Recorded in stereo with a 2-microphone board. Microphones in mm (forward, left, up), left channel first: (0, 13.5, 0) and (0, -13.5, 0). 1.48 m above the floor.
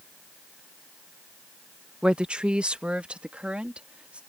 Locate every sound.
2.0 s a woman speaking: 45° right (ahead or behind); by 4.2 s 55° right (ahead or behind)